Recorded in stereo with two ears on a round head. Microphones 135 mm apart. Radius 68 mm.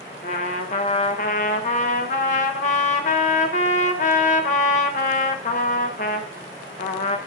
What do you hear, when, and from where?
0.2 s a trumpet: 50° left (ahead or behind), 0.7 m